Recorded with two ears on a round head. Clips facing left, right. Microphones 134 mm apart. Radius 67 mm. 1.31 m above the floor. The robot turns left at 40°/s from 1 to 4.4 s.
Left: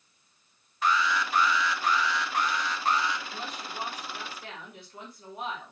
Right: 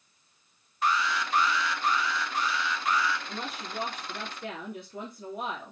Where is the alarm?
105° left, 1.4 m; by 3.2 s 15° left, 1.4 m.